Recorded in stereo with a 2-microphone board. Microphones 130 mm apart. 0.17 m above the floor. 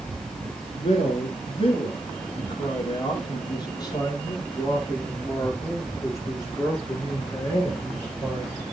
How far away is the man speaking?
About 3.5 m.